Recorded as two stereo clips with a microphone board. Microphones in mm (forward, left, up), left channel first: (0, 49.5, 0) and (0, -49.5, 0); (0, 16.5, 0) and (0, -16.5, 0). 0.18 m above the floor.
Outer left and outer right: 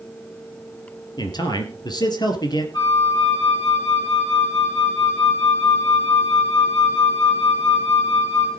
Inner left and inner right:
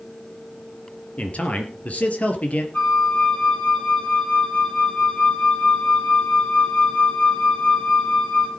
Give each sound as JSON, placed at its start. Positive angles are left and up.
{"t": 1.2, "sound": "a man speaking", "side_deg": 45, "distance_m": 3.0}
{"t": 2.7, "sound": "a flute", "side_deg": 50, "distance_m": 5.0}